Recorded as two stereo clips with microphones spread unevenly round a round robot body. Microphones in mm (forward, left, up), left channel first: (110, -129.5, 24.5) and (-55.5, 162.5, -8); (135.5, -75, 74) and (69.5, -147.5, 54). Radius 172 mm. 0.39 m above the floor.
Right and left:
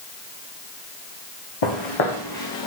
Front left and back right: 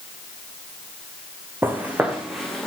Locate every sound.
1.6 s footsteps: 60° right, 2.5 m; by 2.7 s 40° right, 3 m